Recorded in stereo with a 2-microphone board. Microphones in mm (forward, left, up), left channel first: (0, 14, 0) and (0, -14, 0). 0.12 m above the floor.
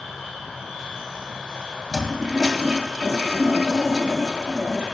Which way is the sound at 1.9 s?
15° right (ahead or behind).